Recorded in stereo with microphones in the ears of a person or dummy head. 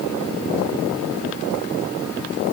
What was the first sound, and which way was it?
Only background noise.